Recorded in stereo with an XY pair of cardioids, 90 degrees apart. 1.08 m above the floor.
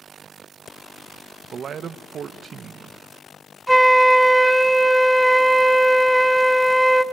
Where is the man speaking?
60° right, 0.6 m.